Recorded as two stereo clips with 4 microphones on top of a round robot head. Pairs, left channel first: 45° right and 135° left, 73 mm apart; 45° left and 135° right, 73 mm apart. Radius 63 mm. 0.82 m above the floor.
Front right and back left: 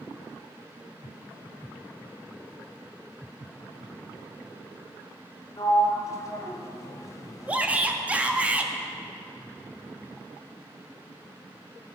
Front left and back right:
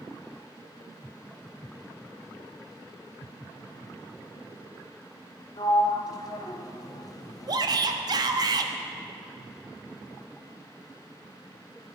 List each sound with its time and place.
5.6 s a sliding door: 5° left, 1.4 m
7.5 s a shout: 155° right, 1.3 m